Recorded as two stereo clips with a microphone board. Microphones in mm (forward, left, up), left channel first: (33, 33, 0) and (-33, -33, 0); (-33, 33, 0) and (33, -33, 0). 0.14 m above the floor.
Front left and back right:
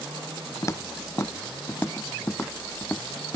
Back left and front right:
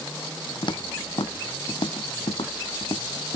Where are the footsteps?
100° left; by 3.4 s 120° left.